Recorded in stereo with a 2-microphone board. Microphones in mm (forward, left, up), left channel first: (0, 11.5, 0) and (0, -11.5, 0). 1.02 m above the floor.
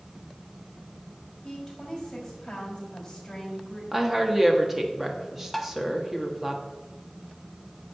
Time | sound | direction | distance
1.4 | a woman speaking | 25° left (ahead or behind) | 5.5 m
3.9 | a woman speaking | 15° right (ahead or behind) | 1.9 m
5.5 | tapping | centre (ahead or behind) | 1.2 m